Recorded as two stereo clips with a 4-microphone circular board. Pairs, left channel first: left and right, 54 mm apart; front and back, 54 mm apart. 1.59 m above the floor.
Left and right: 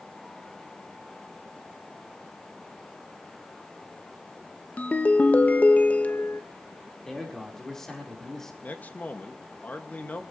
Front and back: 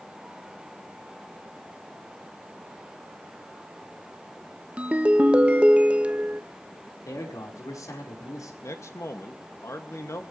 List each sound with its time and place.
4.8 s a ringtone: 125° left, 0.9 m
7.0 s a man speaking: 5° left, 4.5 m
8.6 s a man speaking: 30° left, 2 m